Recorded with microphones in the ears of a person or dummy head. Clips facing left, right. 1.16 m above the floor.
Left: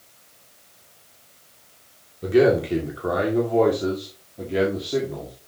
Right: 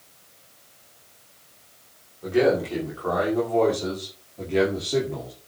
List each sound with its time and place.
2.2 s a man speaking: 45° left (ahead or behind), 2.5 m; by 5.3 s 5° right (ahead or behind), 2 m